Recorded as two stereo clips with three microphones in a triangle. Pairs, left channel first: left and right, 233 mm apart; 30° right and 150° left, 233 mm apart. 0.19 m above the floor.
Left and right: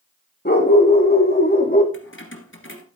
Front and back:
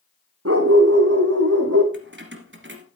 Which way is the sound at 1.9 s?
120° left.